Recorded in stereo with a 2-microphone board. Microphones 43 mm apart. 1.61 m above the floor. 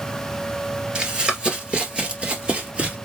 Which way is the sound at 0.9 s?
25° right (ahead or behind).